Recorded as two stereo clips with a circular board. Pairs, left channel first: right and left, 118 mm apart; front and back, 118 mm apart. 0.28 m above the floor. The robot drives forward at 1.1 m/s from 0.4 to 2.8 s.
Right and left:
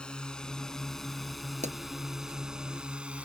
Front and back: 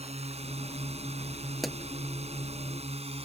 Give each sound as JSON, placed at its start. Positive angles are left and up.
{"t": 0.0, "sound": "a drone", "azimuth_deg": -170}
{"t": 1.6, "sound": "a pop", "azimuth_deg": 90}